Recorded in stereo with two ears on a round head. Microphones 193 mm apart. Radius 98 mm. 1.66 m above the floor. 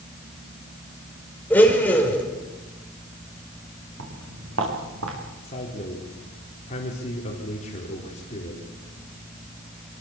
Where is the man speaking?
30° left (ahead or behind), 4.5 m.